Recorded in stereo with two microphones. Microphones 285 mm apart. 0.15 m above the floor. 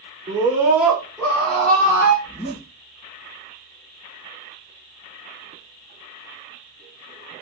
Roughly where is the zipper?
Left.